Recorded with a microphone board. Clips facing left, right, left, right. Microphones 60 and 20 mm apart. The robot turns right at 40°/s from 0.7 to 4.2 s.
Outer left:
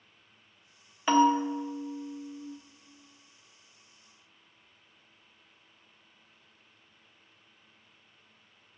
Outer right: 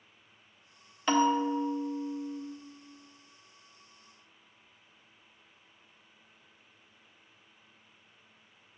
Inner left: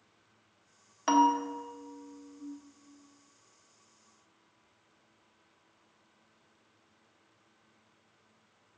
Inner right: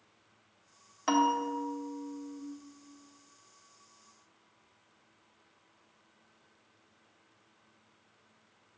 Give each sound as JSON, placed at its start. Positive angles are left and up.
{"t": 1.1, "sound": "a bell", "azimuth_deg": 165, "distance_m": 0.5}